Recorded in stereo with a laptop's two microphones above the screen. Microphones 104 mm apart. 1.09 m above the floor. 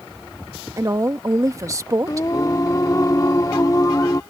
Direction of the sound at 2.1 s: 35° left (ahead or behind).